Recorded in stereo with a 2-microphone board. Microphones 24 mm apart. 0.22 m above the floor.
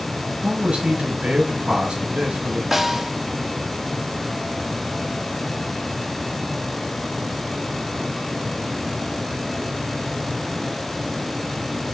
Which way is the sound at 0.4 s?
60° right (ahead or behind).